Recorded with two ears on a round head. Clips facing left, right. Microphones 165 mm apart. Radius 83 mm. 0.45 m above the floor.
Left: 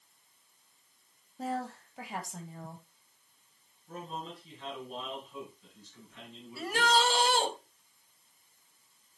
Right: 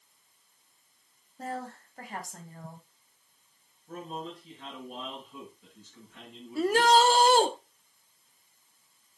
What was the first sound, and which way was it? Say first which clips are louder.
A woman speaking: left 2 dB; centre (ahead or behind).